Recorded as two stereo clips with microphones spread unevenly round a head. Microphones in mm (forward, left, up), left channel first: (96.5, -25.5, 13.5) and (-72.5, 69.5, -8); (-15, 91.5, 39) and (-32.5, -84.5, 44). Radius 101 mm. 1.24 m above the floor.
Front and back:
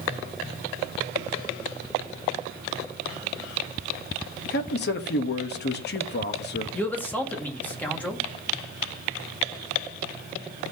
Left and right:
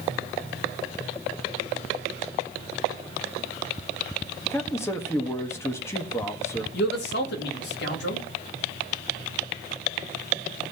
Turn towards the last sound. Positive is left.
turn(degrees=55)